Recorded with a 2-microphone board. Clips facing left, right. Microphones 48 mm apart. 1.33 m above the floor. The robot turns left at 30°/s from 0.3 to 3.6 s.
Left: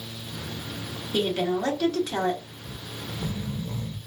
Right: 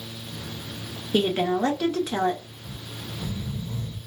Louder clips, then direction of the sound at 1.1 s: Right 3 dB; 140° right.